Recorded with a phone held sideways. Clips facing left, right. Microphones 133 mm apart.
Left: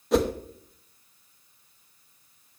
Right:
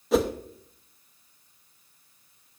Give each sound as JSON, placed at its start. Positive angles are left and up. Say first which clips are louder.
{"t": 0.1, "sound": "a whoosh", "louder": "even", "side_deg": 0, "distance_m": 0.8}